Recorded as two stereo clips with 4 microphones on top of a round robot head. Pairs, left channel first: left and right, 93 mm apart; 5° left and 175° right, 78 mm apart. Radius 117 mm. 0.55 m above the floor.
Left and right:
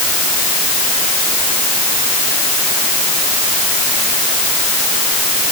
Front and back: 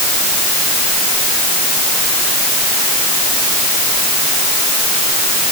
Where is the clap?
I don't hear a clap.